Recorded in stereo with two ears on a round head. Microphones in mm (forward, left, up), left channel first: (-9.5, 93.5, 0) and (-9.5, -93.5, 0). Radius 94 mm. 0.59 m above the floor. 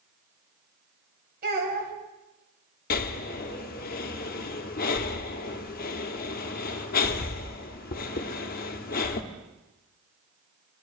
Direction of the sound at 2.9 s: 45° left (ahead or behind).